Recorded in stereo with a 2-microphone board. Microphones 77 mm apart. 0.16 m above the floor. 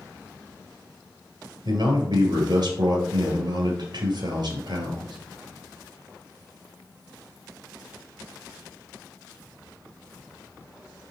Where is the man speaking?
65° right (ahead or behind), 2.5 m.